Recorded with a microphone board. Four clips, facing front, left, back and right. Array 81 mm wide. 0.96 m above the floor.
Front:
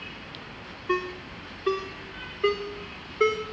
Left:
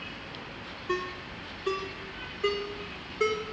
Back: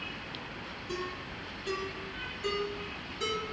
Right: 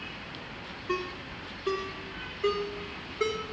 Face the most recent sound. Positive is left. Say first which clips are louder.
# left 1 dB, front 10 dB
turn(degrees=5)